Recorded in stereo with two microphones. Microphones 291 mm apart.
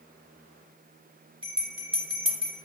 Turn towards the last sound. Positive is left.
turn(degrees=-15)  # may be behind; listen again after turning